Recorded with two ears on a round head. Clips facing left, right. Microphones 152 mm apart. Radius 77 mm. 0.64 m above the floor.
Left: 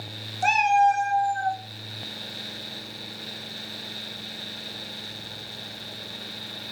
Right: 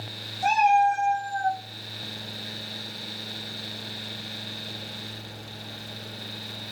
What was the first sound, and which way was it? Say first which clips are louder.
A cat meowing: even; 65° left (ahead or behind).